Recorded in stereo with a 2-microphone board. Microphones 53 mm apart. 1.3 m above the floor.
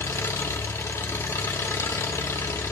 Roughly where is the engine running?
Left.